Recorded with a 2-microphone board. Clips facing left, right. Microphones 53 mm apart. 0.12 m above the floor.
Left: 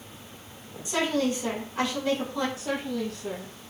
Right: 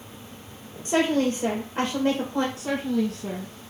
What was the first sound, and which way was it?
A woman speaking, 60° right (ahead or behind).